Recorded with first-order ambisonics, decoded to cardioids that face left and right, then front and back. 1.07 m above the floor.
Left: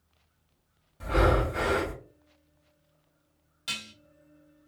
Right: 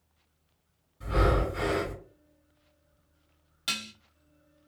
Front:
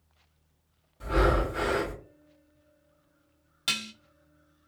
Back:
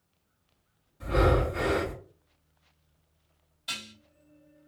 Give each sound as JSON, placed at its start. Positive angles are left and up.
{"t": 1.0, "sound": "breathing", "azimuth_deg": 75, "distance_m": 2.0}
{"t": 3.7, "sound": "dishes clattering", "azimuth_deg": -20, "distance_m": 0.6}